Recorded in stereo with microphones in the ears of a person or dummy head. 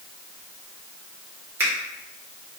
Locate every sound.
1.6 s a finger snap: 15° right (ahead or behind), 1.2 m